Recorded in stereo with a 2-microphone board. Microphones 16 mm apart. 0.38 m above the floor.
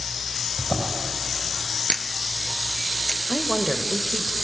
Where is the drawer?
65° left (ahead or behind), 4 m.